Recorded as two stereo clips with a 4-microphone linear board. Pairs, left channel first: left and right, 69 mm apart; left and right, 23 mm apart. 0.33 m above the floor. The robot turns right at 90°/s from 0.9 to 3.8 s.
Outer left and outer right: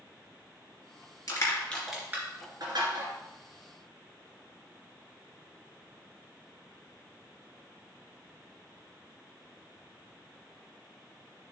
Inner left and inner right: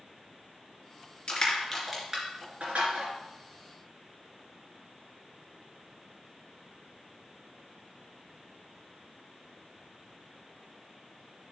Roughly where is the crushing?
Left.